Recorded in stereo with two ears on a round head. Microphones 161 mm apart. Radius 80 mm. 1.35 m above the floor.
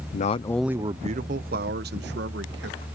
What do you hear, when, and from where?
0.1 s a man speaking: 45° left (ahead or behind); by 2.9 s 70° right (ahead or behind)